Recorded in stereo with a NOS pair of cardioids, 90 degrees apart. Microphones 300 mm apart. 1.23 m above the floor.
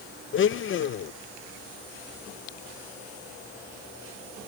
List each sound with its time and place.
0.3 s a blender: 45° left